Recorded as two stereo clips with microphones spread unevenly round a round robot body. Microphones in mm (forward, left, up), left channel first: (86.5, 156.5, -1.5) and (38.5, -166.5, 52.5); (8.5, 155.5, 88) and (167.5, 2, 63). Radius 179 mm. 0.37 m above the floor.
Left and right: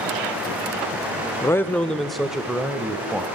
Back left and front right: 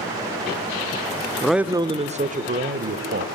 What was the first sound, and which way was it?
A man speaking, 45° left.